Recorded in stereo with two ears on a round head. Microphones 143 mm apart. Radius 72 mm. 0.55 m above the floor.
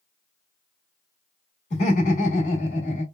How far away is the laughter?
About 1.4 m.